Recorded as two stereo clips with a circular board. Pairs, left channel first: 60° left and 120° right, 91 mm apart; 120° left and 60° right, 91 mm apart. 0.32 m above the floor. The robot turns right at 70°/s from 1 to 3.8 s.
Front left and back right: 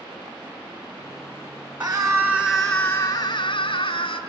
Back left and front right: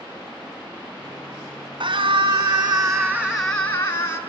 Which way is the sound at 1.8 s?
55° right.